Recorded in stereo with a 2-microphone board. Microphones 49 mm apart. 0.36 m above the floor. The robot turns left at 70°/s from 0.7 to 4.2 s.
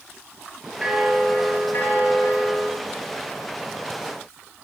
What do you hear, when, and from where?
0.8 s a bell: 165° right, 4.5 m; by 2.7 s 65° left, 4.5 m